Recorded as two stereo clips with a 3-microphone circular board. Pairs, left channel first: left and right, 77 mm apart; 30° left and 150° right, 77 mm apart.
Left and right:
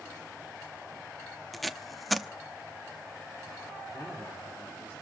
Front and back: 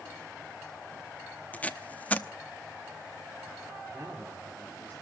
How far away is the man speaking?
About 4 m.